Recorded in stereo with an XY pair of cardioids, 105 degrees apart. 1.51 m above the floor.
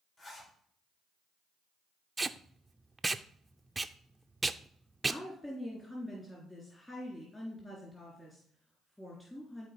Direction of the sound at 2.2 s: 15° right.